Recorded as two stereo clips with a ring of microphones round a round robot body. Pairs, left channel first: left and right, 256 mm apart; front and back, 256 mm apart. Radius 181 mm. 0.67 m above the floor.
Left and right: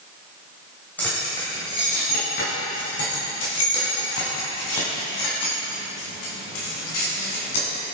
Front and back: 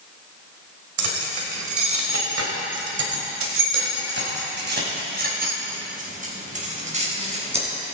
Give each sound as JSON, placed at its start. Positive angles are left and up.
{"t": 1.0, "sound": "keys jangling", "azimuth_deg": 175, "distance_m": 2.5}